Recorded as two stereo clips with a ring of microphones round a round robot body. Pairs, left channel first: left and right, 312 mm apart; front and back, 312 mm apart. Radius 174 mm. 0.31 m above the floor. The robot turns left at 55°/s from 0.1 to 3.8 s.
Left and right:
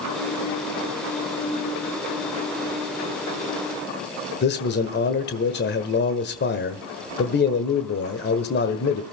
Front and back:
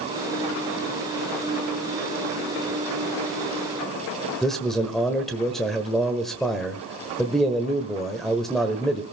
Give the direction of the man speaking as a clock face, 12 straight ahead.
9 o'clock.